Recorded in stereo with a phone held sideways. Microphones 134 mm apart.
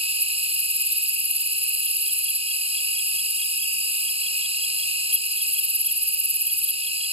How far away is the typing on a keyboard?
I don't hear typing on a keyboard.